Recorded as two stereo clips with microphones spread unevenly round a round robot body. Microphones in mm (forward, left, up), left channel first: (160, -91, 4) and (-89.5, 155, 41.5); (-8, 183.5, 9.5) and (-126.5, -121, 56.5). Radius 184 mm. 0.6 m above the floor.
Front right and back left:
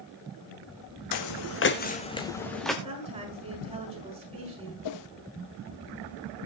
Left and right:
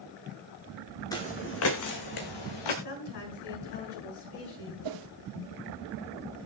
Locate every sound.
1.1 s footsteps: 15° right, 1.4 m; by 2.7 s 45° left, 2.5 m
2.8 s a woman speaking: 60° left, 6.5 m
4.8 s a whoosh: 75° right, 0.8 m